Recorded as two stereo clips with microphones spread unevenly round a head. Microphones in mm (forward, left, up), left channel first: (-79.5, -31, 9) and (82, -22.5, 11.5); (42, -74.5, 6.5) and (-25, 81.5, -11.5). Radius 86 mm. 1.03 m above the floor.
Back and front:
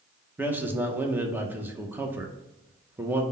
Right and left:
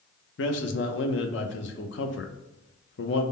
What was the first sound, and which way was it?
A man speaking, 75° right.